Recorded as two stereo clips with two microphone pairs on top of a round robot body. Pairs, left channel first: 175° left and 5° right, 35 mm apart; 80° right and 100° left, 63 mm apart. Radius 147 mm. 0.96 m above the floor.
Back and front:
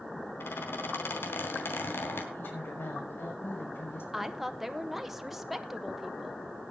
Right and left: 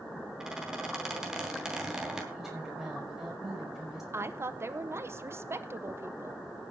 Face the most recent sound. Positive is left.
turn(degrees=80)